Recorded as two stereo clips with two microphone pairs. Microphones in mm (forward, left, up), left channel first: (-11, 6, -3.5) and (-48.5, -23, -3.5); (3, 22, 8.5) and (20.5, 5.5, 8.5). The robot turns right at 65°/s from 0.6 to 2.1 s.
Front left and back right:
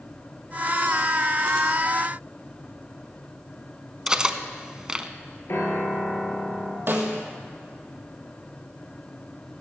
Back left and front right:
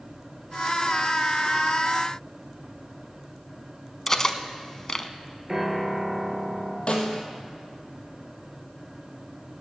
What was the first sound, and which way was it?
Cutlery clinking, 175° left.